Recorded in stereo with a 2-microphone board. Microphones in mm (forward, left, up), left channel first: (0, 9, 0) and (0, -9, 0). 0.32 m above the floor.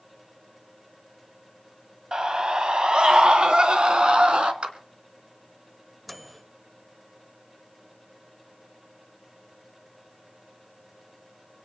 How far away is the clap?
About 2.5 m.